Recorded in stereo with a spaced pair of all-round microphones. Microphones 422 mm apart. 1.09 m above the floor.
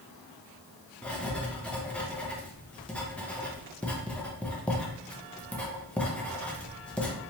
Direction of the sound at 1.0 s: 5° left (ahead or behind).